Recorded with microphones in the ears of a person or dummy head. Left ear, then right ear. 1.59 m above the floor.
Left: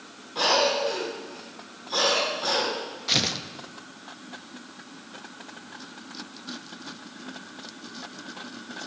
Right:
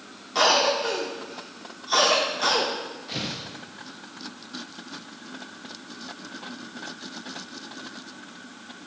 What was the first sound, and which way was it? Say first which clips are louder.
A cough: right 2 dB; 50° right (ahead or behind).